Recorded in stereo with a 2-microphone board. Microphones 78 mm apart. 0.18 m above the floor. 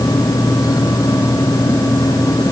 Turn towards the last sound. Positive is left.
No sound to turn to.